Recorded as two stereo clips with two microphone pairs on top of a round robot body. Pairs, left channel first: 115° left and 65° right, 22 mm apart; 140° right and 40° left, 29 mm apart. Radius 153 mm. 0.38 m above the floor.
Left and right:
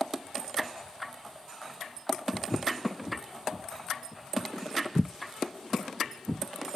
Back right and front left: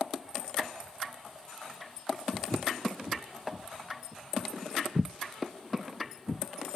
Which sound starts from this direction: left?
Footsteps, at 2.3 s.